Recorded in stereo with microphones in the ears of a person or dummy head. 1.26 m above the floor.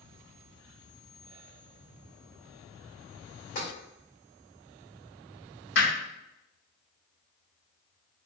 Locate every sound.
3.5 s tapping: 45° left (ahead or behind), 1.9 m
5.8 s hammering: 50° left (ahead or behind), 1.7 m